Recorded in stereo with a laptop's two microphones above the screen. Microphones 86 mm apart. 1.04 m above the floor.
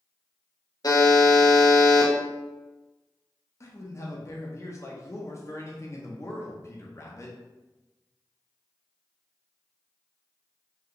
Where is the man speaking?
35° left (ahead or behind), 0.5 m.